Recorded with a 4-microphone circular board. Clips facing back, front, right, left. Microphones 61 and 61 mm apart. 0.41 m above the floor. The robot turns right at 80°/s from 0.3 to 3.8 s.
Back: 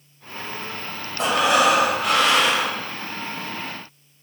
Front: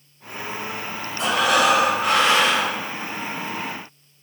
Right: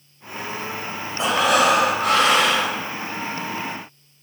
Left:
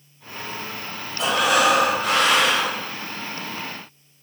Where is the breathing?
145° right, 1.2 m; by 2.8 s 20° right, 1.2 m.